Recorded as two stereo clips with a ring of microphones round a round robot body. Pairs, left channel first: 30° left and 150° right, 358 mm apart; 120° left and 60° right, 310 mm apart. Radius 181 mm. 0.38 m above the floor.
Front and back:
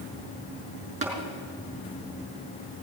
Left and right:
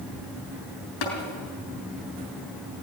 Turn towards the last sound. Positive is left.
turn(degrees=135)